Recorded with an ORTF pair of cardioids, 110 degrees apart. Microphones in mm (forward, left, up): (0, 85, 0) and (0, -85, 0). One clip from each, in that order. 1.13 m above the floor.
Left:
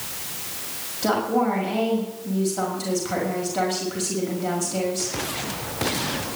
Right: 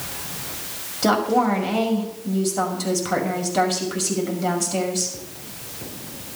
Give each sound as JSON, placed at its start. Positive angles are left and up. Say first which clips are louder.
{"t": 1.0, "sound": "a woman speaking", "louder": "right 3 dB", "azimuth_deg": -30, "distance_m": 6.0}